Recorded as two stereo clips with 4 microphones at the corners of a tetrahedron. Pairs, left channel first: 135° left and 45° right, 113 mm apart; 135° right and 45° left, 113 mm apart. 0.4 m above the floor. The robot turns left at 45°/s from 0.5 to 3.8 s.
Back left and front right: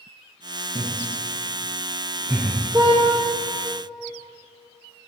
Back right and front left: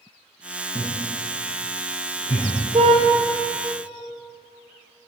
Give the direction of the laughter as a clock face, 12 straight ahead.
1 o'clock.